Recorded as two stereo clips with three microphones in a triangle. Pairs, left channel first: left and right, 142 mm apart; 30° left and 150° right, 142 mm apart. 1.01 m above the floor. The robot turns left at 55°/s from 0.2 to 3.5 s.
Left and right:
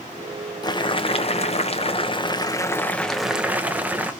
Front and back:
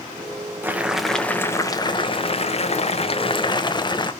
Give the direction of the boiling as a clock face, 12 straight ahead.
7 o'clock.